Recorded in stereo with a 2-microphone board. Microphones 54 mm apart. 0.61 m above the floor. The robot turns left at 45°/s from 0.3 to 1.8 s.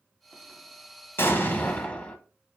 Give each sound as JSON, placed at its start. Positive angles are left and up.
{"t": 1.2, "sound": "an explosion", "side_deg": 45, "distance_m": 0.6}